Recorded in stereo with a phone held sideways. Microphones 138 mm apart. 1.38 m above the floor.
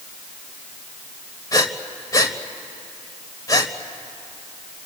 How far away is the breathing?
About 1.4 m.